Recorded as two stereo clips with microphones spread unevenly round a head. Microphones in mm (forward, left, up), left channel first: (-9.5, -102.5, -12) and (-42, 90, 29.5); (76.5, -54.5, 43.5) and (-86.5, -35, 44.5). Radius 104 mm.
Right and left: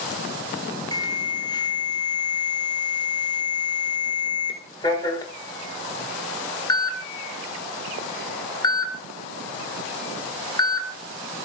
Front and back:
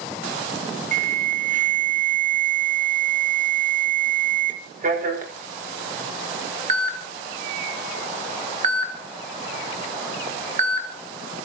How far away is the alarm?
About 5 m.